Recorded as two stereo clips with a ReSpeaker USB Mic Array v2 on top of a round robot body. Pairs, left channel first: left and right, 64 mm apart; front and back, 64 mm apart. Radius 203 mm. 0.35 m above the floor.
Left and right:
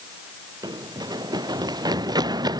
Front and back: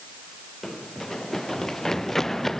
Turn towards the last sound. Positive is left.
turn(degrees=-85)